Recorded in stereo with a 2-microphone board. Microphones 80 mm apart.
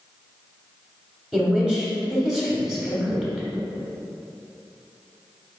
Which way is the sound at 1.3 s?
10° right (ahead or behind).